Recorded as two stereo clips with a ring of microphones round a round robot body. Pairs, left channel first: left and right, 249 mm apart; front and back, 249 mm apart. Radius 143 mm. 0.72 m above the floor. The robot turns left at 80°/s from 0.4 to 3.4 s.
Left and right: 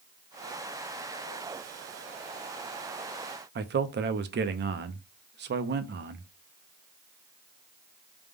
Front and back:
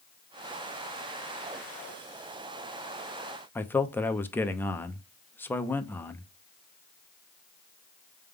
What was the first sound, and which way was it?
A man speaking, 80° right.